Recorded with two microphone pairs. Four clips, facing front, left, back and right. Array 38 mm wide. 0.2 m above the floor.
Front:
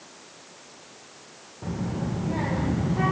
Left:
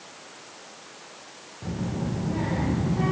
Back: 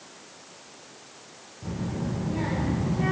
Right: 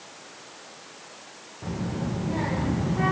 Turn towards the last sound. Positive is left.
turn(degrees=-20)